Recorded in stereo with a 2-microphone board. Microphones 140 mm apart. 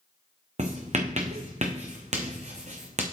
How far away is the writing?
About 1.5 m.